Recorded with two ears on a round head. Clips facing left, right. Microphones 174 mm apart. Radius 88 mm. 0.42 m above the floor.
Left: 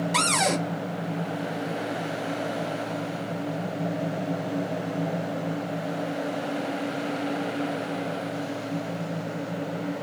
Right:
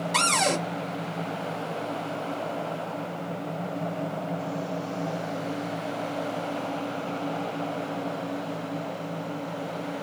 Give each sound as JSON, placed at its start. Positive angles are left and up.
{"t": 0.1, "sound": "a cupboard door", "side_deg": 5, "distance_m": 0.6}